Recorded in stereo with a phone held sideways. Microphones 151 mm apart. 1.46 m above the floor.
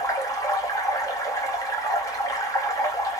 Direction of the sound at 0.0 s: 25° left (ahead or behind).